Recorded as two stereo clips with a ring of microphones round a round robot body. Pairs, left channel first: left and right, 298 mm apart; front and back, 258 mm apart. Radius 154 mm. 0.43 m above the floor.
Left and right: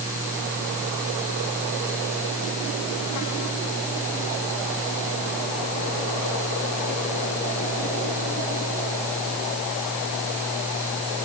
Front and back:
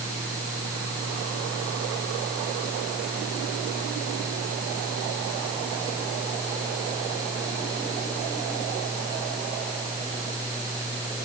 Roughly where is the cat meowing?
I don't hear a cat meowing.